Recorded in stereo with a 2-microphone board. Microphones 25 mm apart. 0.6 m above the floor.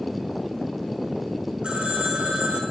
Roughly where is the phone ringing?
Right.